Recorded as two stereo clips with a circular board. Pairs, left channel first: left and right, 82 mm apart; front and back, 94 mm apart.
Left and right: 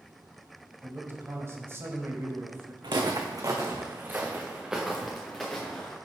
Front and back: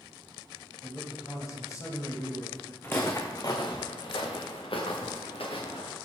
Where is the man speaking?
40° right, 1.4 m.